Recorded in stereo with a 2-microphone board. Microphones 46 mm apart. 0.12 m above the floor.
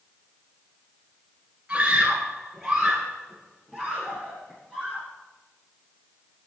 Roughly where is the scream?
Right.